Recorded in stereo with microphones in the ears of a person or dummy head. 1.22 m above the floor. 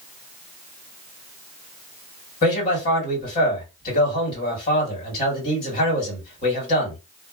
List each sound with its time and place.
2.4 s a man speaking: 45° left (ahead or behind), 1.6 m